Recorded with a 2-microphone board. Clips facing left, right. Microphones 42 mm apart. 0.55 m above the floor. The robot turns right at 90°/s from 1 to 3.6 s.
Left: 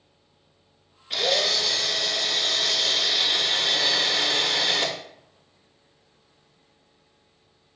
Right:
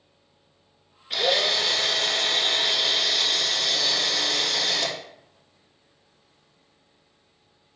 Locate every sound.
1.1 s a drill: straight behind, 0.6 m; by 5.0 s 45° left, 0.6 m